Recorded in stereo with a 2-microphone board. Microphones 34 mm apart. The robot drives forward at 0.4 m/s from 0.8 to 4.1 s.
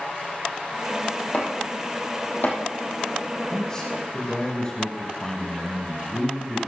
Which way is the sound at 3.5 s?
20° left (ahead or behind).